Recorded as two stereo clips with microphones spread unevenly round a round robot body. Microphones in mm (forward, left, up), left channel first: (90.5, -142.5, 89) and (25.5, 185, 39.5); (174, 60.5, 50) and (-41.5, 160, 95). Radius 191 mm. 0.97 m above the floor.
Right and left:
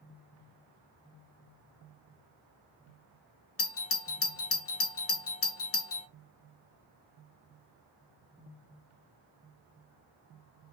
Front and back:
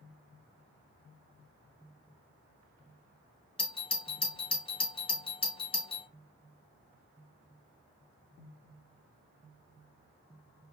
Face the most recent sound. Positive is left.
turn(degrees=-50)